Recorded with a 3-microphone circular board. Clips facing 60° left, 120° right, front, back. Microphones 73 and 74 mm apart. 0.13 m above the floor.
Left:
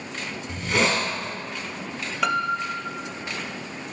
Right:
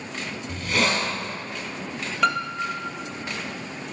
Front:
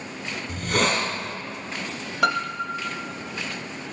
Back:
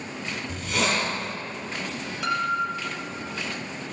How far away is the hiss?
About 1.8 m.